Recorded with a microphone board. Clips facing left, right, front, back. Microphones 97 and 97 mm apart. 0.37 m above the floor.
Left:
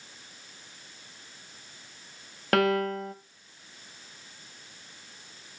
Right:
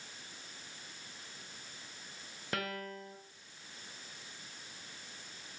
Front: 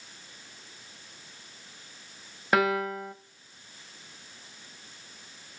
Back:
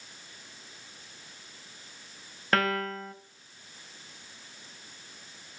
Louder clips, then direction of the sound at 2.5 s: Left 16 dB, front 3 dB; 80° left.